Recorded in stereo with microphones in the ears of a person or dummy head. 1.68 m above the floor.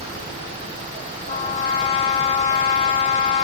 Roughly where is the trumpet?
Left.